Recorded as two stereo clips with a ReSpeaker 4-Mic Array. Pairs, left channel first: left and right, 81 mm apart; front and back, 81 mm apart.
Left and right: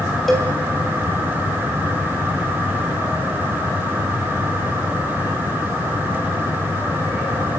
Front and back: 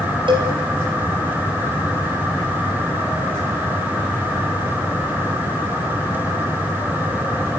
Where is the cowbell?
175° left, 5 m.